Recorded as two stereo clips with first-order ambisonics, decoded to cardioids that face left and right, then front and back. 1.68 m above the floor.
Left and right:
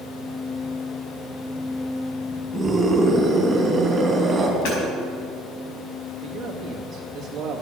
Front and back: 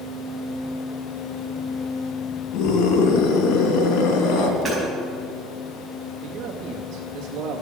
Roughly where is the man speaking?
Behind right.